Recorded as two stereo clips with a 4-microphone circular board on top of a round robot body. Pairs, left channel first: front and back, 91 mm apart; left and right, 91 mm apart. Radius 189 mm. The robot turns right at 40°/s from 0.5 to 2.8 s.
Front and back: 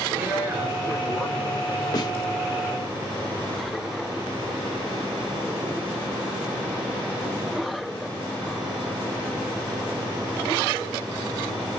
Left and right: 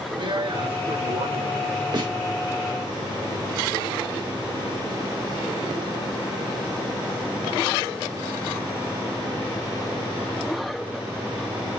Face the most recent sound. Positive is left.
turn(degrees=-15)